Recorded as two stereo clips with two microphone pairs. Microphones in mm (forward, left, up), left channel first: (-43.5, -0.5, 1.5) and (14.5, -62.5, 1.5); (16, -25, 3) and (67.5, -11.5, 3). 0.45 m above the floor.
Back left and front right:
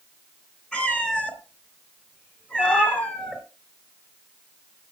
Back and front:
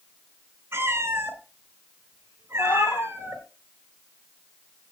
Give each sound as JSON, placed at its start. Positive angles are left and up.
{"t": 0.7, "sound": "a cat meowing", "azimuth_deg": 55, "distance_m": 3.0}
{"t": 2.6, "sound": "a cat meowing", "azimuth_deg": -170, "distance_m": 1.6}